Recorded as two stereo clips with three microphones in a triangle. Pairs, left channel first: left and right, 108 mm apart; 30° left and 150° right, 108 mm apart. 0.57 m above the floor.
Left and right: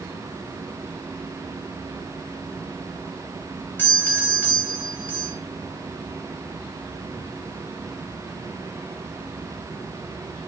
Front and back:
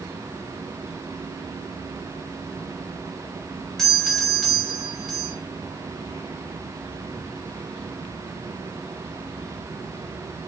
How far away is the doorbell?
About 1.5 m.